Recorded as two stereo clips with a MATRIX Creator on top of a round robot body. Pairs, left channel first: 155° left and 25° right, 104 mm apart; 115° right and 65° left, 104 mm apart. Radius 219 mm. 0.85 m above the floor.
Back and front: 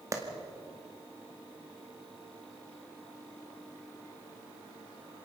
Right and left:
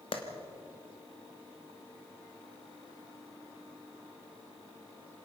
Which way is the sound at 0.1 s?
80° right.